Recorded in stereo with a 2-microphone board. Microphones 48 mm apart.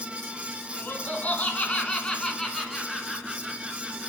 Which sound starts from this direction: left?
Laughter, at 0.8 s.